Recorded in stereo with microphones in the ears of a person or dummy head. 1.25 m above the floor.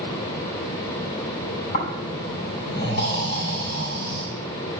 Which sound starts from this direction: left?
Snoring, at 1.7 s.